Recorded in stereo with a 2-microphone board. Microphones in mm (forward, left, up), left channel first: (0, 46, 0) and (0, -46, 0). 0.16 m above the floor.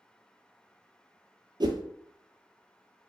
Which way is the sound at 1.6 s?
55° right (ahead or behind).